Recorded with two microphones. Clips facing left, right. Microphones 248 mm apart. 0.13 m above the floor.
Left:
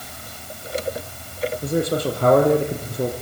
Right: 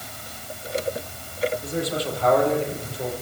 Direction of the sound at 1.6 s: 55° left (ahead or behind).